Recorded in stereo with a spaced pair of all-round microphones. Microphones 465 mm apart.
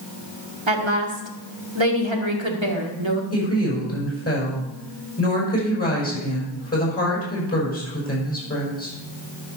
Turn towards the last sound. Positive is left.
turn(degrees=30)  # may be behind; listen again after turning